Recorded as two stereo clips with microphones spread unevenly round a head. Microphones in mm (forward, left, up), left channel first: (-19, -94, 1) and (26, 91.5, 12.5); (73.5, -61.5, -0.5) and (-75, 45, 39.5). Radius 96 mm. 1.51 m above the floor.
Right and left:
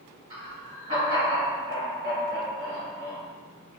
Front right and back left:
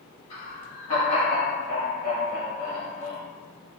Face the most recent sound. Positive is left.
turn(degrees=15)